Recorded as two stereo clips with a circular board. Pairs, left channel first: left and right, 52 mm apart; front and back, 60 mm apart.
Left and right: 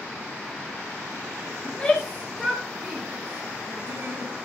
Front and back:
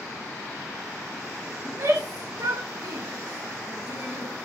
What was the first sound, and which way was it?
A shout, 155° left.